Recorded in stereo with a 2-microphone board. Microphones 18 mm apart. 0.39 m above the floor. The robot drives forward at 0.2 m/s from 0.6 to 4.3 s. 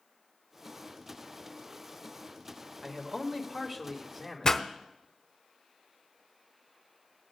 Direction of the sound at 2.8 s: 10° right (ahead or behind).